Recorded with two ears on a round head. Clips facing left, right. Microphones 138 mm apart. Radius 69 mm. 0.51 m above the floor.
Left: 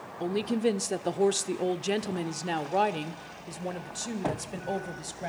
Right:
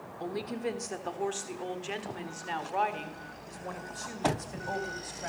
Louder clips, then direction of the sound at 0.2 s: Left 7 dB; 30° left (ahead or behind).